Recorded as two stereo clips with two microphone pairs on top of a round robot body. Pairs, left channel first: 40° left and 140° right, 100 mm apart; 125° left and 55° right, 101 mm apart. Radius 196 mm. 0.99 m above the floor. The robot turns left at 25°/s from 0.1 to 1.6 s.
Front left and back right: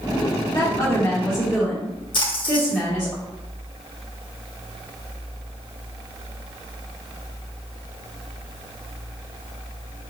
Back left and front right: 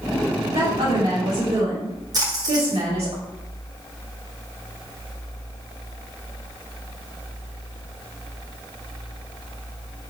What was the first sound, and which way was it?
A woman speaking, 30° right.